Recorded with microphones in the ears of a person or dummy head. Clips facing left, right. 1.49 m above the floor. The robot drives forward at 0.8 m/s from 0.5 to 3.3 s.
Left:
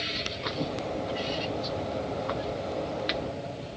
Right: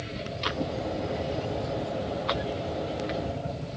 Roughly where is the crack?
No crack in this recording.